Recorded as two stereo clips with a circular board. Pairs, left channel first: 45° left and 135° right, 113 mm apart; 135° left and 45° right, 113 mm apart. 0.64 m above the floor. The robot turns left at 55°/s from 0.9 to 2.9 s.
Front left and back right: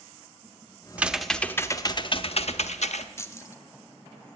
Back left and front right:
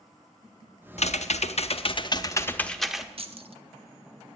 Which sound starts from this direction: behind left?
Typing on a keyboard, at 1.0 s.